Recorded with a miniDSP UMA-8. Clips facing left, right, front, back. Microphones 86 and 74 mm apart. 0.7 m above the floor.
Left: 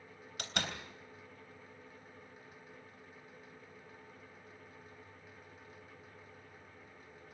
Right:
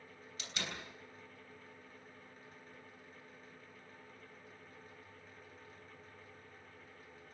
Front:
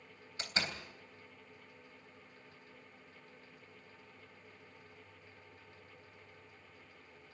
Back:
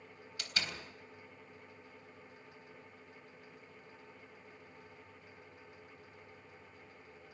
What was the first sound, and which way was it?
A door slam, 60° left.